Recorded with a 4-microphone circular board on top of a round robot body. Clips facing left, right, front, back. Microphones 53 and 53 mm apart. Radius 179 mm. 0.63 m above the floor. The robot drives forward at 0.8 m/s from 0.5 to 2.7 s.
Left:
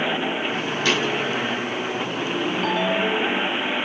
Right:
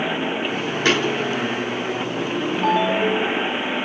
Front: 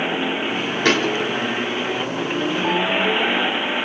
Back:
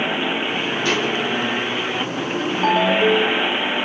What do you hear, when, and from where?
0.8 s a thud: 35° right, 3 m; by 1.2 s 40° right, 3 m
2.6 s a ringtone: 160° right, 1.9 m; by 3.5 s 165° right, 2.0 m